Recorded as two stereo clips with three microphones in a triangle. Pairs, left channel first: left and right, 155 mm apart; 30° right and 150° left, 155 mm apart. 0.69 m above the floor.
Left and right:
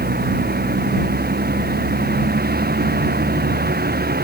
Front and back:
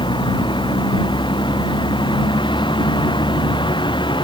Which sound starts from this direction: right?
A vehicle, at 0.0 s.